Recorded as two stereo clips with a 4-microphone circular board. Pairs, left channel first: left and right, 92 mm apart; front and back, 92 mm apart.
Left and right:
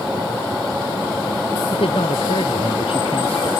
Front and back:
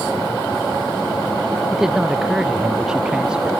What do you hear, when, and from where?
1.7 s a man speaking: 95° left; by 3.5 s 100° left